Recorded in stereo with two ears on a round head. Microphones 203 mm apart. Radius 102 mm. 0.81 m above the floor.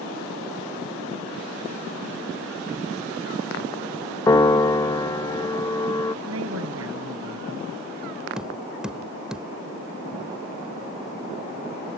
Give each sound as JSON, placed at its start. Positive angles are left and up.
{"t": 4.3, "sound": "a piano", "side_deg": 15}
{"t": 6.2, "sound": "a woman speaking", "side_deg": -75}
{"t": 8.4, "sound": "tapping", "side_deg": -5}